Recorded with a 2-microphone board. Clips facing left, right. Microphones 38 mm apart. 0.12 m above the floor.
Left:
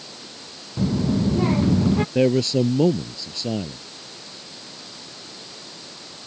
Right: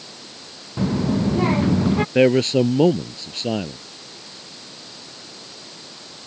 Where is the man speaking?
45° right (ahead or behind).